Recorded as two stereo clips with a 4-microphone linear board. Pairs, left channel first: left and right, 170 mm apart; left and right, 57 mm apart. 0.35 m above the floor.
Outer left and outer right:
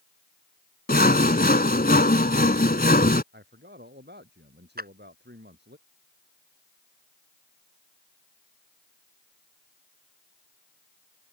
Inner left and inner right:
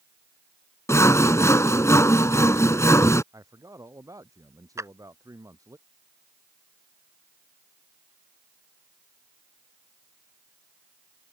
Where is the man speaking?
85° right.